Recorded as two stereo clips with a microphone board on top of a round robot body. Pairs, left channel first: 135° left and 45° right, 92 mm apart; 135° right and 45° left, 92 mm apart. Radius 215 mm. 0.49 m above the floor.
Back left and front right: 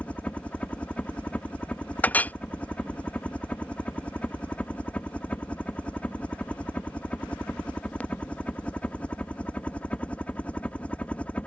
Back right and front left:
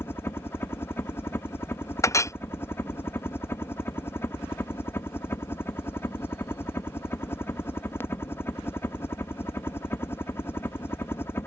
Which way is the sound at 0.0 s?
165° right.